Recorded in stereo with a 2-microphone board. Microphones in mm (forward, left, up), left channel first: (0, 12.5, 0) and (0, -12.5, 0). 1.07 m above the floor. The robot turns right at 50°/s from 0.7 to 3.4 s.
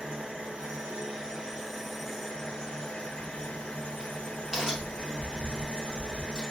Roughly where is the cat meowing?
I don't hear a cat meowing.